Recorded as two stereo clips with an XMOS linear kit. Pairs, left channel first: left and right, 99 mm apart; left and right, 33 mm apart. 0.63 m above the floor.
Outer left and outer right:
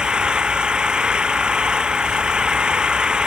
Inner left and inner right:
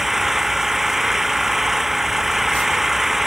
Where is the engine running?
10° right (ahead or behind).